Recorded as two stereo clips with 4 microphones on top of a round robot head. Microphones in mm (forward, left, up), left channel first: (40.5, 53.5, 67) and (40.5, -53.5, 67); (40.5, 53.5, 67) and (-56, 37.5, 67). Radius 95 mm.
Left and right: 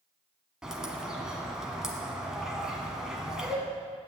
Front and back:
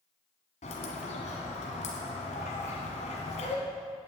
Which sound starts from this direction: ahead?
A bird, at 0.6 s.